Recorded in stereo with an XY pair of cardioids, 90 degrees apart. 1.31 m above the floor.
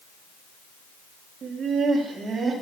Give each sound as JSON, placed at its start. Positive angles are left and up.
{"t": 1.4, "sound": "laughter", "azimuth_deg": -65, "distance_m": 2.5}